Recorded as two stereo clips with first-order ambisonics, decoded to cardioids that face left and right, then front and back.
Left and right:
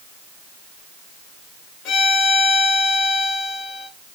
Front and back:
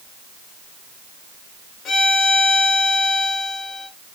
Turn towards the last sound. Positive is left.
turn(degrees=55)